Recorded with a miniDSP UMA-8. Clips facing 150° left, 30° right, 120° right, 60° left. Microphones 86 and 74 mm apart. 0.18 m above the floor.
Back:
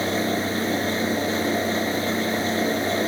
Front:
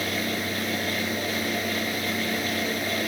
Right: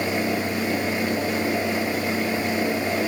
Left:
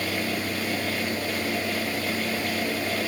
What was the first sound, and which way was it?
Only background noise.